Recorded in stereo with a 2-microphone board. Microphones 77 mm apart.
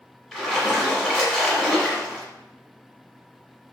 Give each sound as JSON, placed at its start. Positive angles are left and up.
{"t": 0.3, "sound": "a splash", "side_deg": 0, "distance_m": 1.0}